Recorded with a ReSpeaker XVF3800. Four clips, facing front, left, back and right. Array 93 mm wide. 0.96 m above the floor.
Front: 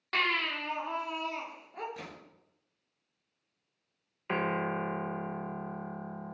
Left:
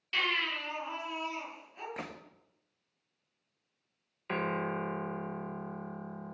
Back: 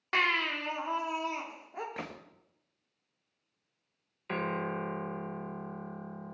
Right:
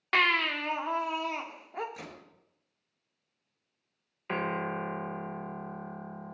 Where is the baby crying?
105° right, 1.5 m.